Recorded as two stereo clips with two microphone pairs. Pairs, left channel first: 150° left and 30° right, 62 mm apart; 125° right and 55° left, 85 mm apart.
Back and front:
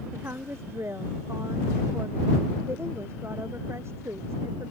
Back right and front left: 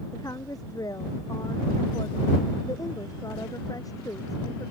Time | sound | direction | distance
0.1 | a woman speaking | 80° right | ?